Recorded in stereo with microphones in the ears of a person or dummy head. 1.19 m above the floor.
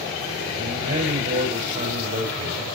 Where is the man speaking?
45° right (ahead or behind), 4 m.